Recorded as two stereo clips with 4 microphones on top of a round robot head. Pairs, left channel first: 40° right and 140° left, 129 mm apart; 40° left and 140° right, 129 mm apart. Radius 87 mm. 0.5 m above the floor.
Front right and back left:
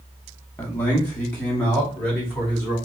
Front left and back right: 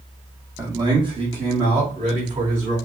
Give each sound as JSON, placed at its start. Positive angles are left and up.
{"t": 0.6, "sound": "a man speaking", "azimuth_deg": -95, "distance_m": 0.9}